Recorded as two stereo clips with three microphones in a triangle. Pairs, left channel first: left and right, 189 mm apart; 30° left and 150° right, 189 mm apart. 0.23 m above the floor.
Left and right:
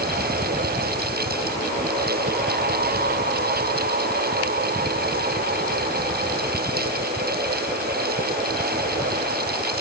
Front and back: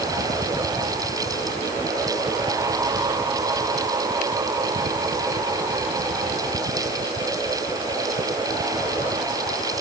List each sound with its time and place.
Only background noise.